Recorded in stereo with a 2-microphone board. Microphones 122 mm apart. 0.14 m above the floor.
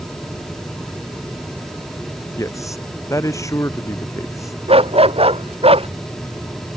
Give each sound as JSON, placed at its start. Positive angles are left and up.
{"t": 2.4, "sound": "a man speaking", "side_deg": 25}
{"t": 4.7, "sound": "a dog barking", "side_deg": -50}